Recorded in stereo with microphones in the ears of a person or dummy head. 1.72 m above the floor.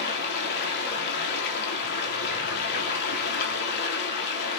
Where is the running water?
65° left (ahead or behind), 3.5 m.